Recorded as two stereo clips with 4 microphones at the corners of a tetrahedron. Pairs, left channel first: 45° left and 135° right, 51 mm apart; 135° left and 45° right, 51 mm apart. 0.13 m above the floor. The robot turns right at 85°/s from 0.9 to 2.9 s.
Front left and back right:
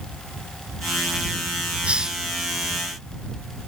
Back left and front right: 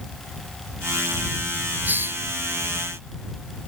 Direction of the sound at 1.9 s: 80° right.